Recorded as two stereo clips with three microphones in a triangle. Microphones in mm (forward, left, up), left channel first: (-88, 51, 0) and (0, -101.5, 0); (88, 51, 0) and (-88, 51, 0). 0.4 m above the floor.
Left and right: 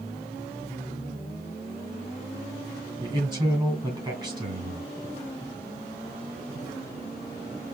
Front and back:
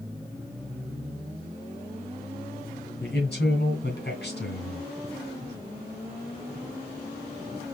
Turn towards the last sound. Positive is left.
turn(degrees=5)